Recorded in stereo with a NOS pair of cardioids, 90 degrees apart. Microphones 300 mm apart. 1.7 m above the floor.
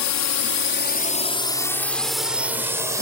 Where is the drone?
70° left; by 3.0 s 10° right.